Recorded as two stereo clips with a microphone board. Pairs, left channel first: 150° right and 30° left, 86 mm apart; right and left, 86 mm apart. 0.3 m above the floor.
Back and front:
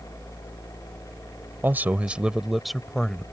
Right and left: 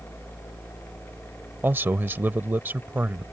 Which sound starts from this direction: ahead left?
A man speaking, at 1.6 s.